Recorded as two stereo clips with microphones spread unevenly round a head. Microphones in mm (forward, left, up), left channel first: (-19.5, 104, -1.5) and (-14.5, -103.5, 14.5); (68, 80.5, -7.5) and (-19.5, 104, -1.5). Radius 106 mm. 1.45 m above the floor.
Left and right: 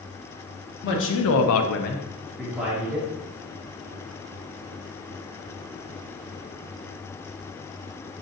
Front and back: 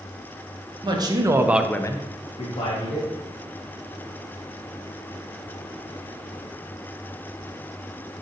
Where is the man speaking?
125° left, 1.4 m; by 3.1 s 15° right, 1.9 m.